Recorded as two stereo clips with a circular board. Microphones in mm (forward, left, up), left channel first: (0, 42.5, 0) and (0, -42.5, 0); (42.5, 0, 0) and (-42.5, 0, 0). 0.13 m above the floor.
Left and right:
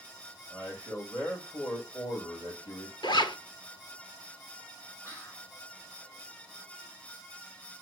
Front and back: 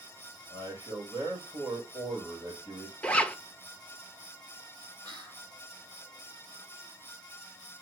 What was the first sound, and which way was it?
A man speaking, 150° left.